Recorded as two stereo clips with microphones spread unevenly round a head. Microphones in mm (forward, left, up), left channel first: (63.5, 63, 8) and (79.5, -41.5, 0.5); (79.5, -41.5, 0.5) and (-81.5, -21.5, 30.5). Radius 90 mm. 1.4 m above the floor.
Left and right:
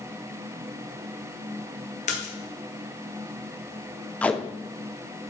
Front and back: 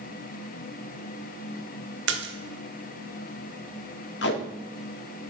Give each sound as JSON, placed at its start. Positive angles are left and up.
{"t": 2.1, "sound": "a splash", "azimuth_deg": 145, "distance_m": 1.1}
{"t": 4.2, "sound": "tape being pulled", "azimuth_deg": 25, "distance_m": 1.0}